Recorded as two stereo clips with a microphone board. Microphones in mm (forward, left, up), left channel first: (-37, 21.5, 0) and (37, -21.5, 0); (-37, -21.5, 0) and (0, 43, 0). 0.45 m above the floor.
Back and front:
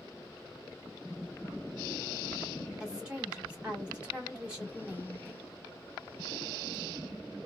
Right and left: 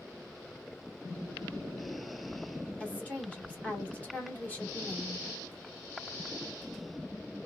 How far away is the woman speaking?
About 1.3 m.